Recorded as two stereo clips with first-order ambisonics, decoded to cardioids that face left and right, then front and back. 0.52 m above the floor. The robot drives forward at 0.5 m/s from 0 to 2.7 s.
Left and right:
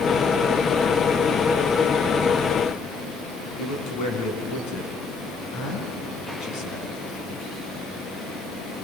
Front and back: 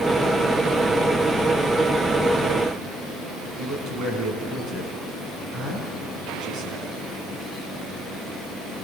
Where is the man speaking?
120° left, 5.5 m.